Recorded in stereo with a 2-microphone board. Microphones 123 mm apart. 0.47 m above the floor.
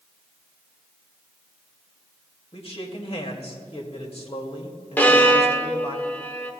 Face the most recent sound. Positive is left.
turn(degrees=15)  # may be behind; listen again after turning